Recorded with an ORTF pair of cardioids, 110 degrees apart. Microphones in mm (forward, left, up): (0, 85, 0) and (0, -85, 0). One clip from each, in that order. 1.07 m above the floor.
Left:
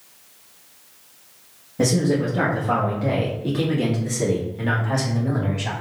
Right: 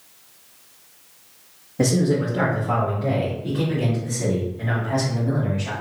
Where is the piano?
No piano in this recording.